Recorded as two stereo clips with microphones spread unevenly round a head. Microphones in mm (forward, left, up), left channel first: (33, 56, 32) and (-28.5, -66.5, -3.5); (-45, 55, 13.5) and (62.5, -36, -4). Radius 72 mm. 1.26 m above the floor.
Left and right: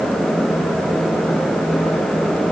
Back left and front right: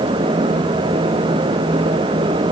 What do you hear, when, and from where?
Only background noise.